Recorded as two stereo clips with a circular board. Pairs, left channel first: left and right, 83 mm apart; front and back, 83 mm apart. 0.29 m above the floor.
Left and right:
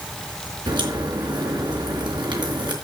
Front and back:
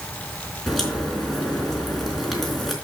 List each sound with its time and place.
0.7 s a crack: 90° right, 3.5 m